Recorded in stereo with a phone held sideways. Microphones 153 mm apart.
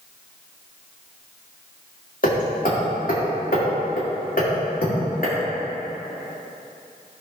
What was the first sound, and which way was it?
Hammering, 65° left (ahead or behind).